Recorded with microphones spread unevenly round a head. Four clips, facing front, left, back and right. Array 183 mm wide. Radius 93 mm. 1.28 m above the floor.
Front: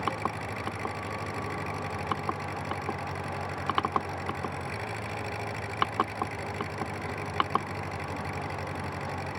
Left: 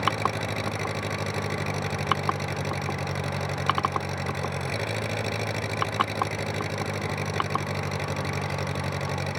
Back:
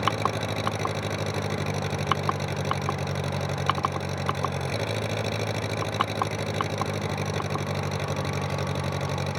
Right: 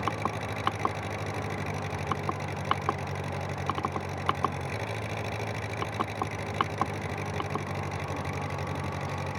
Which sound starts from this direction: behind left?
An engine running, at 0.0 s.